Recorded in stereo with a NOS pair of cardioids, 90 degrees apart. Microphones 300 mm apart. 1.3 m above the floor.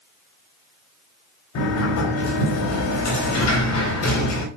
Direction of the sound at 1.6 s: 70° left.